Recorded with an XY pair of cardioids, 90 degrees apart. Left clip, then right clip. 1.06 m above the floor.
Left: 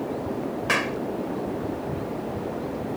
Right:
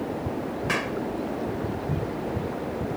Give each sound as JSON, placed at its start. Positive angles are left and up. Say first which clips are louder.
{"t": 0.7, "sound": "a clap", "louder": "left 4 dB", "azimuth_deg": 30}